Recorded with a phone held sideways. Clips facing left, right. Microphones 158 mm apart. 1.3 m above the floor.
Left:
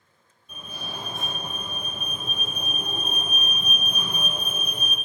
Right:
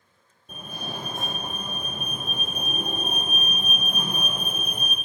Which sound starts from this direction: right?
A fire alarm, at 0.5 s.